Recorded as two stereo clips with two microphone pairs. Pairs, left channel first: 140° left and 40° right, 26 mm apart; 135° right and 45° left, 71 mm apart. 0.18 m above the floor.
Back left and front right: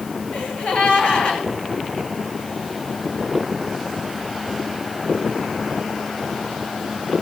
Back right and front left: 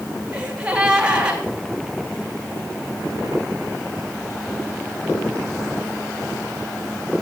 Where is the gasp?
120° left, 2.5 m.